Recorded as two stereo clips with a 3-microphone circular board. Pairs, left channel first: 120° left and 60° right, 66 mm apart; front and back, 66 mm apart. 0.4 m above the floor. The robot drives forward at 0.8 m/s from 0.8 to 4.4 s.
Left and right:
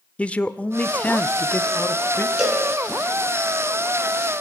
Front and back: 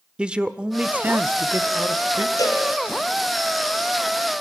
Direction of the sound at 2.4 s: 20° left.